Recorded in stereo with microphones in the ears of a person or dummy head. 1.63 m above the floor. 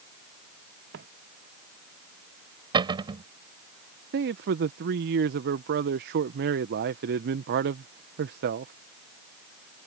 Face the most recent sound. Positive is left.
turn(degrees=-60)  # may be behind; listen again after turning